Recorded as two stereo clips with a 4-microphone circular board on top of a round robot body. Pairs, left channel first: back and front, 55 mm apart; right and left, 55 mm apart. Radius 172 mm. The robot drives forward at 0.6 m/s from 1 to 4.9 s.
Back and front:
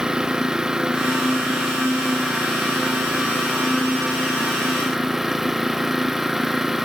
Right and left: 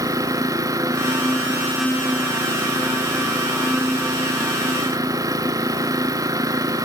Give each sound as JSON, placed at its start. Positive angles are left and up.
{"t": 0.0, "sound": "an engine running", "azimuth_deg": 80}